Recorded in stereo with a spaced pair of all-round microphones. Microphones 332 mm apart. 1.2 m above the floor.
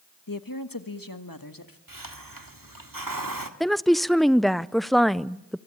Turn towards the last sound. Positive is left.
turn(degrees=0)  # may be behind; listen again after turning